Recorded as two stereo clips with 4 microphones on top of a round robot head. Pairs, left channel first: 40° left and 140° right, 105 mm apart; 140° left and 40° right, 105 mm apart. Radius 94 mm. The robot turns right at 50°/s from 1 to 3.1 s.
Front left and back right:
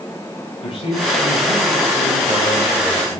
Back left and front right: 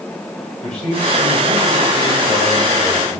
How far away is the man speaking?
About 2.5 m.